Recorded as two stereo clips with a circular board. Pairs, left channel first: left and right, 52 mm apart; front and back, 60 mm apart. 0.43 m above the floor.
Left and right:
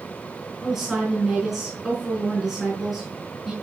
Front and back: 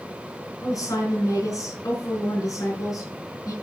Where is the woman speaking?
5° right, 5.5 m.